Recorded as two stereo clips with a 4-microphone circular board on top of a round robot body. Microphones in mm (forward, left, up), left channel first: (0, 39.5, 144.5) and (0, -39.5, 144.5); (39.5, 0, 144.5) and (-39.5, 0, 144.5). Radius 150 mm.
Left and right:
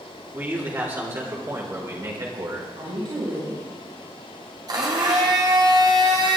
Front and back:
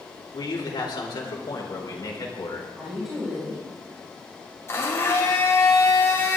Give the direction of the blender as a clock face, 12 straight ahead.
2 o'clock.